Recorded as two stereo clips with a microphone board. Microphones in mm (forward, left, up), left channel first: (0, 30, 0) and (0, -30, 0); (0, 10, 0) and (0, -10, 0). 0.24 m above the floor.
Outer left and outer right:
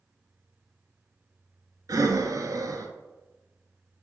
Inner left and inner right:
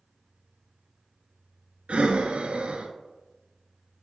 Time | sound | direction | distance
1.9 | breathing | 85° right | 0.7 m